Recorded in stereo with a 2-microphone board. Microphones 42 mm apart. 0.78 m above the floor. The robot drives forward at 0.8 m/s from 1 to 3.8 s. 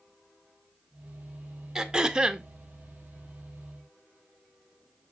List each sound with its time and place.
1.8 s throat clearing: 15° right (ahead or behind), 1.0 m; by 2.5 s 20° right (ahead or behind), 0.6 m